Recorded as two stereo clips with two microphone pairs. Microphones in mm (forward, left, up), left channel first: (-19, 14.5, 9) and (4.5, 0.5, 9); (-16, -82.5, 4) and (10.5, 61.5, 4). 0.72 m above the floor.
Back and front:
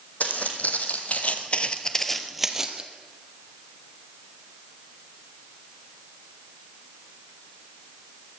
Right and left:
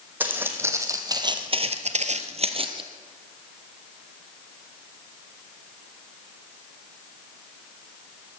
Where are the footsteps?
155° left, 2.5 m; by 2.8 s 25° left, 1.6 m.